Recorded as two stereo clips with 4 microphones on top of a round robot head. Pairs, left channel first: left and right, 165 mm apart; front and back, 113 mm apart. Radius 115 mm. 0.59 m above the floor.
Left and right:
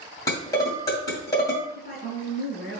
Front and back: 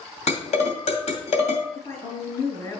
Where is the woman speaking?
55° left, 4 m.